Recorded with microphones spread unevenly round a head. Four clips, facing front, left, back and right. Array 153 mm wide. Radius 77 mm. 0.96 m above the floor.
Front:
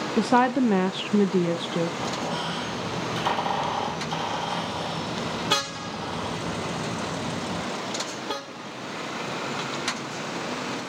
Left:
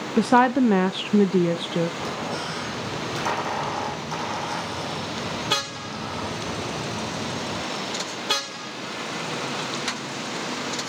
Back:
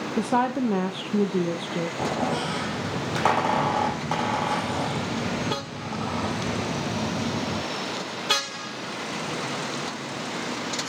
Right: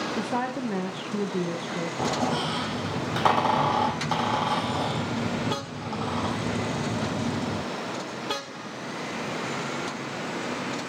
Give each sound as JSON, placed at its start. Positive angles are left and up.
{"t": 0.2, "sound": "a woman speaking", "azimuth_deg": 90, "distance_m": 0.8}
{"t": 2.0, "sound": "a squeak", "azimuth_deg": -140, "distance_m": 5.5}